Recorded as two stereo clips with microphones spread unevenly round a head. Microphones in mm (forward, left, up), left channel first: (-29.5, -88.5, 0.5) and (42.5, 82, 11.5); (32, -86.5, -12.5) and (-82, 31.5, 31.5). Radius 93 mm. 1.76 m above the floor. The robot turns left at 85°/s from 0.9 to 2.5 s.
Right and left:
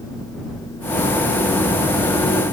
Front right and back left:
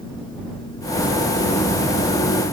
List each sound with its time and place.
Only background noise.